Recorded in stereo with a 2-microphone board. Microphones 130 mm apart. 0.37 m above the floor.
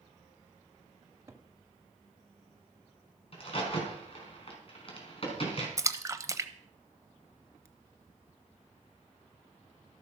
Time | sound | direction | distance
1.0 | a cupboard door | 20° right (ahead or behind) | 1.6 m
3.3 | a crack | 45° left (ahead or behind) | 4 m
5.8 | a splash | 25° right (ahead or behind) | 0.9 m